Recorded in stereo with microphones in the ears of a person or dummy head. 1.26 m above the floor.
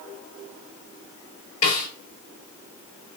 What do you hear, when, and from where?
1.6 s a snare drum: 45° left (ahead or behind), 1.7 m